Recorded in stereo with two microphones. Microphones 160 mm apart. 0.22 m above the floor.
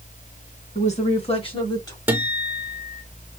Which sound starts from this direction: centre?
A guitar, at 2.1 s.